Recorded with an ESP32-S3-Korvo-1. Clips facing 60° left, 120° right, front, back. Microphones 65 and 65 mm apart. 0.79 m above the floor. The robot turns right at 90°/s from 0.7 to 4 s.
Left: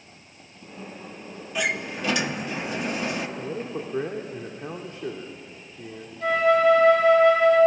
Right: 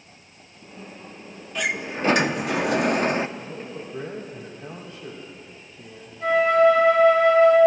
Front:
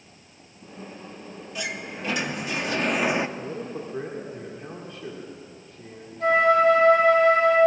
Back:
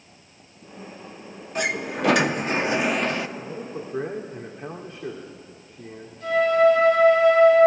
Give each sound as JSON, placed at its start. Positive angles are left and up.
{"t": 1.6, "sound": "a sliding door", "azimuth_deg": 145, "distance_m": 0.8}
{"t": 3.4, "sound": "a man speaking", "azimuth_deg": 55, "distance_m": 1.8}
{"t": 6.2, "sound": "a flute", "azimuth_deg": -25, "distance_m": 7.0}